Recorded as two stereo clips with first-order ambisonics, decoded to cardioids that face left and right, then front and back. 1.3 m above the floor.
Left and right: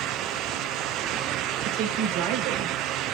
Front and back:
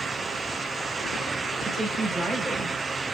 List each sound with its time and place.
1.6 s a woman speaking: 95° right, 4 m